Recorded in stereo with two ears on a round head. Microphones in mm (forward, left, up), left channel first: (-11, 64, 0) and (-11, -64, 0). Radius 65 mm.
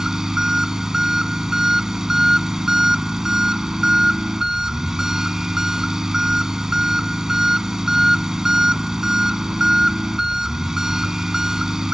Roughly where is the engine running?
Centre.